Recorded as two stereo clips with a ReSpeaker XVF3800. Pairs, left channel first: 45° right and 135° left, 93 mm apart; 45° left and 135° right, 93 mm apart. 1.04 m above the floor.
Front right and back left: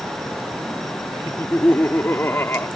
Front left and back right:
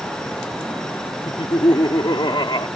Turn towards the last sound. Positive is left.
turn(degrees=20)